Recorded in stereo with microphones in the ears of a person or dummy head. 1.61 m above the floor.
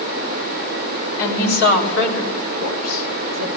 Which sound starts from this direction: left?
A woman speaking, at 1.2 s.